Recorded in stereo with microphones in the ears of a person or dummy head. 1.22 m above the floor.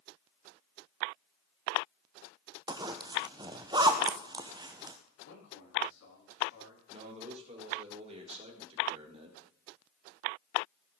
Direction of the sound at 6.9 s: 35° right (ahead or behind).